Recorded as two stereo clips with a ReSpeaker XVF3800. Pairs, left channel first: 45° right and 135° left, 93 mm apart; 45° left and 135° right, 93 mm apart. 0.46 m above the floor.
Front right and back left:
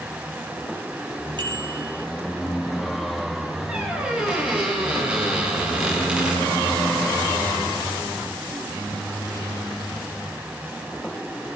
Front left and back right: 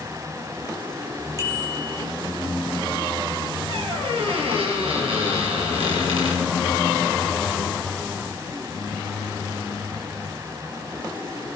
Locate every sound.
1.4 s a bicycle bell: 165° left, 8 m
3.7 s a squeak: 150° right, 7.5 m